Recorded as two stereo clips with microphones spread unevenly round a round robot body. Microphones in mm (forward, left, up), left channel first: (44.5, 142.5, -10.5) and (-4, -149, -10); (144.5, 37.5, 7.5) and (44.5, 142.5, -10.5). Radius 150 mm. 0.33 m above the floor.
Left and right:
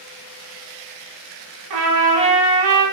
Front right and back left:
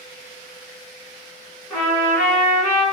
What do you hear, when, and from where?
1.7 s a trumpet: 130° right, 1.5 m